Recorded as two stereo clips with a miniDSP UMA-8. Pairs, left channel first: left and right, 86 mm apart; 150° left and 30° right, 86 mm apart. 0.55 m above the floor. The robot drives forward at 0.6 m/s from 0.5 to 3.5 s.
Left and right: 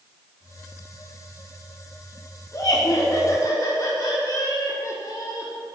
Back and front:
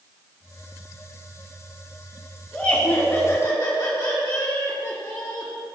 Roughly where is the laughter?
Left.